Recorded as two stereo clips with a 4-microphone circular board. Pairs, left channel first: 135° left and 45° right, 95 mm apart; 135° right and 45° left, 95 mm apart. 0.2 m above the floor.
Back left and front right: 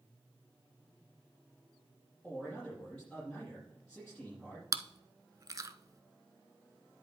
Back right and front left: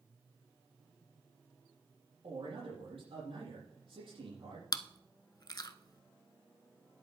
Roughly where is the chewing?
Right.